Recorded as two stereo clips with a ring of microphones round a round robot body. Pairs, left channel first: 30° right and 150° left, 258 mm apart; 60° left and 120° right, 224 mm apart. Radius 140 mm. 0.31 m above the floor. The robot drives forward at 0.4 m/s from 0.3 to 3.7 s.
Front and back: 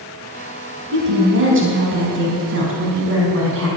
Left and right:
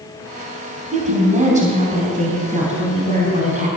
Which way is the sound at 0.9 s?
170° right.